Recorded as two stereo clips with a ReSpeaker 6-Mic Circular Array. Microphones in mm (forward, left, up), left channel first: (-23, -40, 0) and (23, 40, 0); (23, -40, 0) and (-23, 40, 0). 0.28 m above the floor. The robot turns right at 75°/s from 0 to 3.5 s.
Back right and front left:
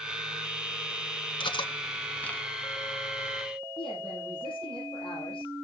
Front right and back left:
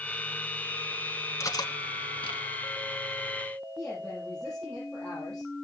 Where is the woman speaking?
140° right, 8 m.